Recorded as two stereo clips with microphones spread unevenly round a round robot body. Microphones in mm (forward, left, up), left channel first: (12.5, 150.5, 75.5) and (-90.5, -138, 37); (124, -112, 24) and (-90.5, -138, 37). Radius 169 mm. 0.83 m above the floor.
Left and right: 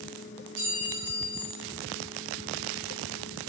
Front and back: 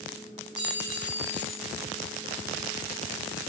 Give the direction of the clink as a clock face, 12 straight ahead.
4 o'clock.